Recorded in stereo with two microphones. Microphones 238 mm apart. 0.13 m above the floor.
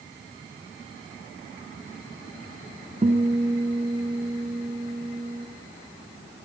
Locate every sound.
3.0 s a guitar: 25° right (ahead or behind), 1.9 m